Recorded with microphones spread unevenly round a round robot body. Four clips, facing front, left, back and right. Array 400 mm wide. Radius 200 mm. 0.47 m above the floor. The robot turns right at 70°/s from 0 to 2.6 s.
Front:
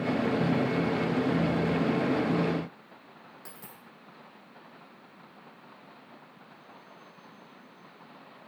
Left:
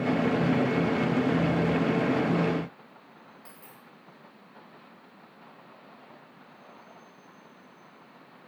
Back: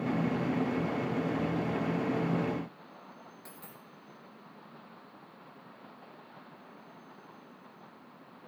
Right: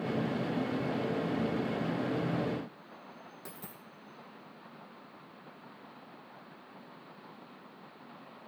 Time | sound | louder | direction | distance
3.5 | a dropped coin | right 2 dB, front 1 dB | 70° right | 2.5 m